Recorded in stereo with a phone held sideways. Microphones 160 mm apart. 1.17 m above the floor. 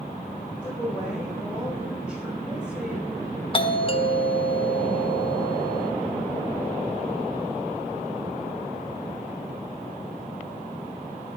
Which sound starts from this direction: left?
A doorbell, at 3.5 s.